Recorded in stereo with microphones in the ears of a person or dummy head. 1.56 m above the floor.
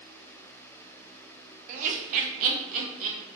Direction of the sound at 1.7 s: 45° right (ahead or behind).